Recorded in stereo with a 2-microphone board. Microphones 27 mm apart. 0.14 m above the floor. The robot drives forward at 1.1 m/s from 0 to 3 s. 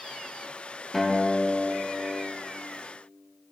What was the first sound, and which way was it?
A guitar, centre (ahead or behind).